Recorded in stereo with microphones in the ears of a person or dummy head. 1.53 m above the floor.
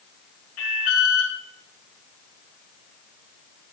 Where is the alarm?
85° left, 5.5 m.